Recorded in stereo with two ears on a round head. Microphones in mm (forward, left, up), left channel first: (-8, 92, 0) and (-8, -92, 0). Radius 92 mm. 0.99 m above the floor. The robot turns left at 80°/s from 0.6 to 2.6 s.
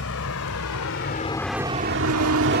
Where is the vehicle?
75° left (ahead or behind); by 2.6 s 45° right (ahead or behind).